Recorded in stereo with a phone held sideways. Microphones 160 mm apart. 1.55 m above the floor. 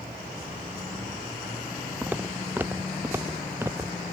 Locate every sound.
2.0 s footsteps: 10° right (ahead or behind); by 4.0 s 15° right (ahead or behind)